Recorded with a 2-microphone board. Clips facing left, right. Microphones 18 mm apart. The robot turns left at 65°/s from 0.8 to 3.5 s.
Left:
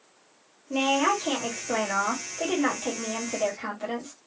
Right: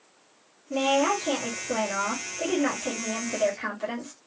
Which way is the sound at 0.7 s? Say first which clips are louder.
Even; 155° left.